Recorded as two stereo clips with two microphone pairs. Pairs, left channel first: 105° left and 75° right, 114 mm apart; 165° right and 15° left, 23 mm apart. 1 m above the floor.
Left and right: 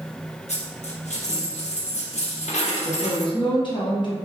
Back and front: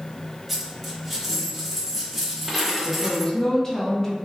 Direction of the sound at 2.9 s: 140° left.